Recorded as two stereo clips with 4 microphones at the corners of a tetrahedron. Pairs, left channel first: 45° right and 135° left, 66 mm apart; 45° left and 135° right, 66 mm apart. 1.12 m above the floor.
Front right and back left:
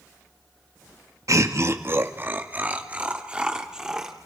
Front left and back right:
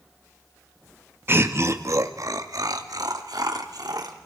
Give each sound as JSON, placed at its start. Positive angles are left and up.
{"t": 1.3, "sound": "laughter", "azimuth_deg": 170, "distance_m": 1.8}